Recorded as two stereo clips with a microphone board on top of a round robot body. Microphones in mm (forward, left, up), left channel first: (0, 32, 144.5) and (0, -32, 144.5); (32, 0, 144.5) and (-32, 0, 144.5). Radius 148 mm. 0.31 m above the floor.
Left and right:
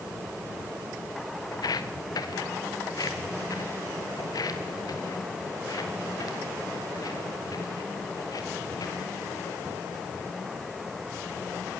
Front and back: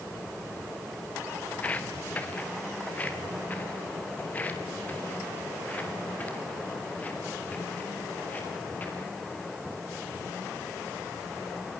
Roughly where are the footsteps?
Left.